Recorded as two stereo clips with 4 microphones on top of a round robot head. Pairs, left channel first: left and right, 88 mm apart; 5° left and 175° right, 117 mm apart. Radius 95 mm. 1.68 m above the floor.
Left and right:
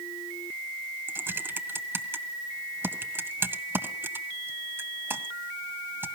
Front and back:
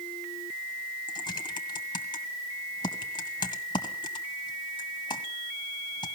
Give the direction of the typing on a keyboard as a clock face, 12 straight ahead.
1 o'clock.